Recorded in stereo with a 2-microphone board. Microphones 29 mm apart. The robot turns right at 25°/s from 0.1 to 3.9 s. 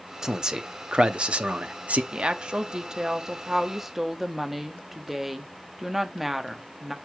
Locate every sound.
0.2 s a man speaking: 155° right, 0.9 m; by 2.0 s 110° right, 0.9 m
2.1 s a woman speaking: 55° right, 1.0 m; by 7.0 s 10° right, 1.0 m